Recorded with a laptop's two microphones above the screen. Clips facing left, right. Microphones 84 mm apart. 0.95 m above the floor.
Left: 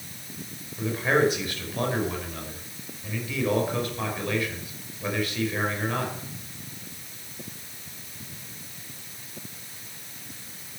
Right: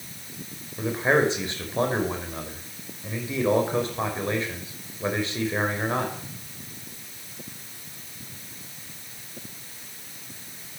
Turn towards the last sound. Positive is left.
turn(degrees=-30)  # may be behind; listen again after turning